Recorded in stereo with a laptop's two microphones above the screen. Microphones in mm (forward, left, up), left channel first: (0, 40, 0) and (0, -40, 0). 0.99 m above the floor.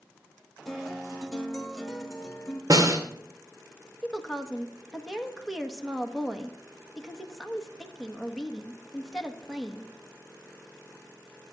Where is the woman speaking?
Centre (ahead or behind), 1.2 m.